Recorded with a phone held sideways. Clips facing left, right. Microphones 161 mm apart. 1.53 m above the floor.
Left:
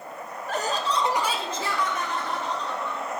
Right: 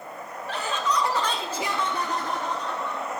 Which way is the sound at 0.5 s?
45° left (ahead or behind).